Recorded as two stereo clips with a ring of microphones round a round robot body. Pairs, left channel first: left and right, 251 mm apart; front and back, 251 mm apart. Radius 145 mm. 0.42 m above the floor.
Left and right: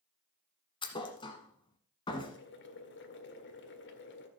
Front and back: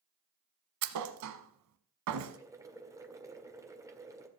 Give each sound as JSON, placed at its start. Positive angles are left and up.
{"t": 0.8, "sound": "a thud", "azimuth_deg": 165, "distance_m": 1.0}
{"t": 2.3, "sound": "boiling", "azimuth_deg": 105, "distance_m": 1.7}